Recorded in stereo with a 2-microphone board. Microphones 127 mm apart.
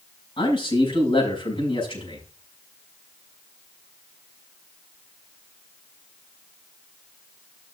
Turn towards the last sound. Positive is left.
turn(degrees=50)  # may be behind; listen again after turning